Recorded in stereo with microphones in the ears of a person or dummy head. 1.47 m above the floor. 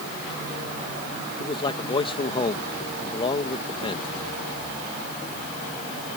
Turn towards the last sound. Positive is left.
turn(degrees=25)  # may be behind; listen again after turning